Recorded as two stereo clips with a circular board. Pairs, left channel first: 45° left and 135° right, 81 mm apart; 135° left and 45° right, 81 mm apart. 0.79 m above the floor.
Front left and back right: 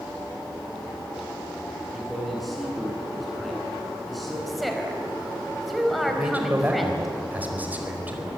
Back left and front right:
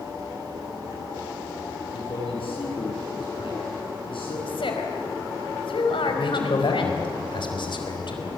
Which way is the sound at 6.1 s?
155° left.